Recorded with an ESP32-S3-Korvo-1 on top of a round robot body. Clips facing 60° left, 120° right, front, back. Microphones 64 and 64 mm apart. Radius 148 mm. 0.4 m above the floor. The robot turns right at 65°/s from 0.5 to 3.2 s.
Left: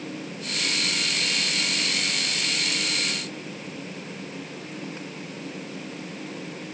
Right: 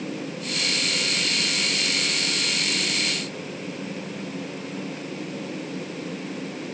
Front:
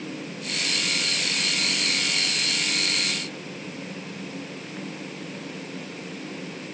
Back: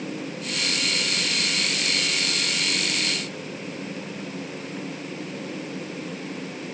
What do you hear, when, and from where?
Only background noise.